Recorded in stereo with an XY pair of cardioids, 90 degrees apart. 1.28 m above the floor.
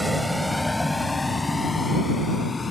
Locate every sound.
0.0 s a vehicle: 10° right; by 2.7 s 30° left